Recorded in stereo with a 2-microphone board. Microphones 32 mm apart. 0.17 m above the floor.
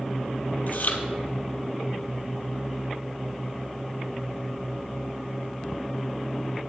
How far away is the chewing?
About 1.5 m.